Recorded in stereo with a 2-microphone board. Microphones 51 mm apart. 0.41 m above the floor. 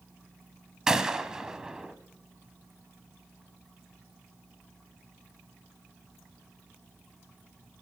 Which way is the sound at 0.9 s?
10° right (ahead or behind).